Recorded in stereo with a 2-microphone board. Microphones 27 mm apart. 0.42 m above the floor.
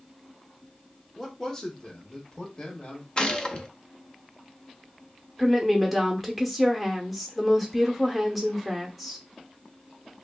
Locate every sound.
1.2 s a man speaking: 10° left (ahead or behind), 0.8 m; by 3.1 s 40° left (ahead or behind), 1.5 m
3.2 s a gunshot: 30° left (ahead or behind), 0.5 m
5.4 s a woman speaking: centre (ahead or behind), 0.8 m